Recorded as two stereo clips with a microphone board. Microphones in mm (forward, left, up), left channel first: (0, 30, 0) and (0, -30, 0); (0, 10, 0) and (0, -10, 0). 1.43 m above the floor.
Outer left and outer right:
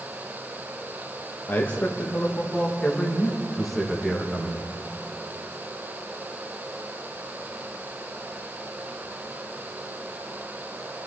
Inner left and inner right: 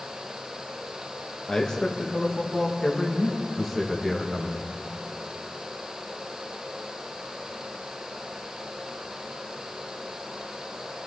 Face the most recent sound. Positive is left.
turn(degrees=-15)  # may be behind; listen again after turning